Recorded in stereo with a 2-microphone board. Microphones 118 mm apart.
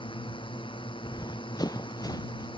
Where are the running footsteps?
35° left (ahead or behind).